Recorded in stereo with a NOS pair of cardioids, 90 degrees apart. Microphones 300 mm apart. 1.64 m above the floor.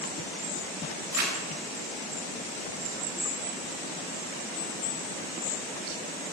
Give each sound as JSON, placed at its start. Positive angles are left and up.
{"t": 1.1, "sound": "crumpling", "azimuth_deg": -60, "distance_m": 5.0}